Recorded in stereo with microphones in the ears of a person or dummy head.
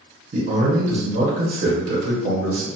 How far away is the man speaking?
About 0.9 m.